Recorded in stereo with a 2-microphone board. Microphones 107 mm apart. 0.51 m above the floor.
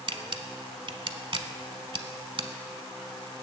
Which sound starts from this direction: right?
A camera shutter, at 0.1 s.